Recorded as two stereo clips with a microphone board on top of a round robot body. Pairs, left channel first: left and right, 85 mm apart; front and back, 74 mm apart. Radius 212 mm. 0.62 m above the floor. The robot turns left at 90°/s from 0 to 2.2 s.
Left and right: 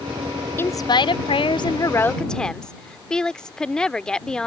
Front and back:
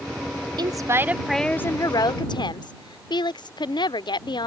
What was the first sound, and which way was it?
A woman speaking, 155° left.